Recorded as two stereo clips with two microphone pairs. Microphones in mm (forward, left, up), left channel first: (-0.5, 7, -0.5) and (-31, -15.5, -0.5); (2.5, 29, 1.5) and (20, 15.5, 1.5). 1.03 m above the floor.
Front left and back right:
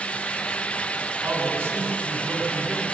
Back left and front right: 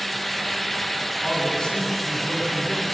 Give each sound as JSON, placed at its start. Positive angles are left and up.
{"t": 1.2, "sound": "a man speaking", "azimuth_deg": -145, "distance_m": 9.5}